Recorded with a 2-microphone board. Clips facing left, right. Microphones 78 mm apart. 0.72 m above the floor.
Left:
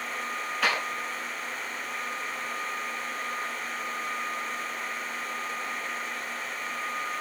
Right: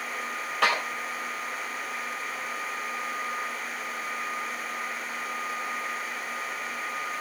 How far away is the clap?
About 3 m.